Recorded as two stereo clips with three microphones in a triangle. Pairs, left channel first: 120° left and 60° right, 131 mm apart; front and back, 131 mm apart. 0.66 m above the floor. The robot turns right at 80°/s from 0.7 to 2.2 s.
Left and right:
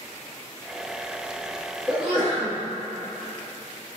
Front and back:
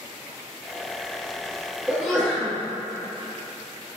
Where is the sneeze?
100° right, 1.5 m; by 2.6 s 75° right, 1.5 m.